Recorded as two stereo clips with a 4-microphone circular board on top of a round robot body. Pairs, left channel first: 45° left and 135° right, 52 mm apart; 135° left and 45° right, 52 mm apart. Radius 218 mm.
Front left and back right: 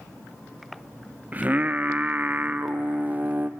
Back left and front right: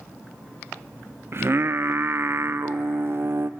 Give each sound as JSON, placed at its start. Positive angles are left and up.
{"t": 1.3, "sound": "singing", "azimuth_deg": -80, "distance_m": 0.7}